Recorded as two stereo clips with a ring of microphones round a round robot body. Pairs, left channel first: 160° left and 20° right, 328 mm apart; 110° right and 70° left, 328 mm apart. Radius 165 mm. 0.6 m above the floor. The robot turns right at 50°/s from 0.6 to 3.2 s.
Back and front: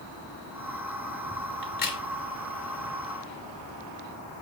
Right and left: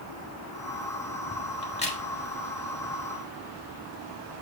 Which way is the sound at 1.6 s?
Straight behind.